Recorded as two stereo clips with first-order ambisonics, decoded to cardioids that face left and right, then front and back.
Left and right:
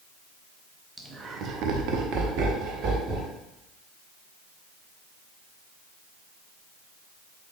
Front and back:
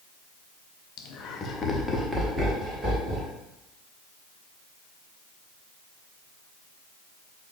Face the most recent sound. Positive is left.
turn(degrees=-120)